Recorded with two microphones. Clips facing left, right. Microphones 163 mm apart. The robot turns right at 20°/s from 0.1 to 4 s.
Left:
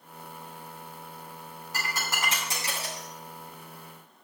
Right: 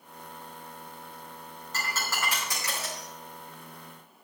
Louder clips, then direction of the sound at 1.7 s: Even; 10° left (ahead or behind).